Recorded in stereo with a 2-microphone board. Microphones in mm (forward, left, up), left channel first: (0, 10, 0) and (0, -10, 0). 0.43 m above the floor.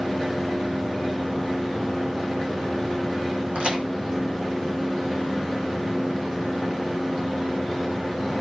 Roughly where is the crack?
Right.